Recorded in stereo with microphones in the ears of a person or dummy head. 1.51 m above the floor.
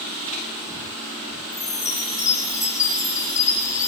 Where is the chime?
20° left (ahead or behind), 5.5 m.